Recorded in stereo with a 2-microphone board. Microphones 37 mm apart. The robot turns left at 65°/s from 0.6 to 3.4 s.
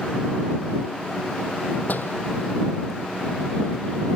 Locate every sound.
1.9 s a door slam: 50° left (ahead or behind); by 2.2 s 70° left (ahead or behind)